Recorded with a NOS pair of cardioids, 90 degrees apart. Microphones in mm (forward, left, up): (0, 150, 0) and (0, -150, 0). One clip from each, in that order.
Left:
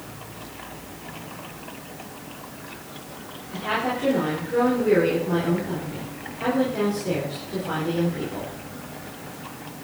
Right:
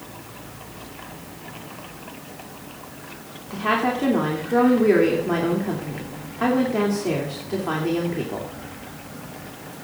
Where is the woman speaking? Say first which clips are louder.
Right 4 dB; 65° right, 3 m.